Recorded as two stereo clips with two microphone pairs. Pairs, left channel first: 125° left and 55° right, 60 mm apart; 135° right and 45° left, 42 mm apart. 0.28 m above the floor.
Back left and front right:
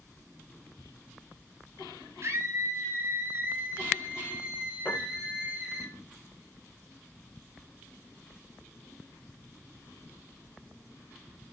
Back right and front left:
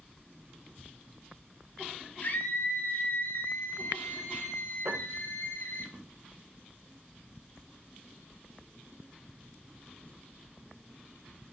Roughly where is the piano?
Left.